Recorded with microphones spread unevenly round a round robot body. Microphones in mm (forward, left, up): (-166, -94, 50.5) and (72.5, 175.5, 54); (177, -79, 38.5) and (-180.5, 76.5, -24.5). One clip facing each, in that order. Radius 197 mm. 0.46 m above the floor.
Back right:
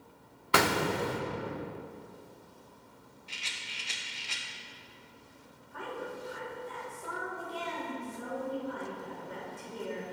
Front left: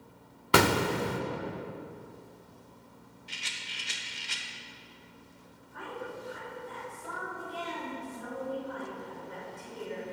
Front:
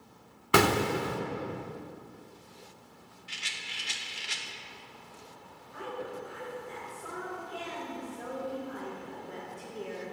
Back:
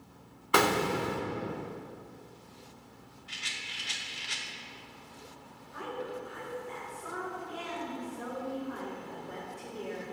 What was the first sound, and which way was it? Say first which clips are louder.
An explosion: front left 3 dB, front 2 dB; 25° left.